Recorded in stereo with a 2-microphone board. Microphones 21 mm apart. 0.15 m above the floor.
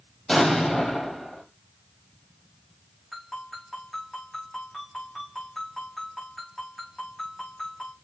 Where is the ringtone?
5° left (ahead or behind), 6 m.